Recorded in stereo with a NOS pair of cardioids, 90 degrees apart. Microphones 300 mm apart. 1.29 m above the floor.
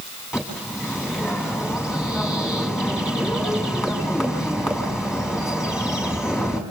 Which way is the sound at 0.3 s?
Straight ahead.